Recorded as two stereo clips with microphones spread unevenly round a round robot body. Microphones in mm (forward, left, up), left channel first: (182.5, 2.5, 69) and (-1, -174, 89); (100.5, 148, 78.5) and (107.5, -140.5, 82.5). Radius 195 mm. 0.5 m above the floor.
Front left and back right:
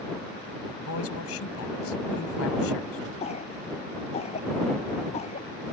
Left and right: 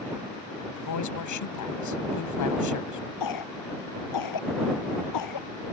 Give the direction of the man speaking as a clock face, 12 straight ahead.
9 o'clock.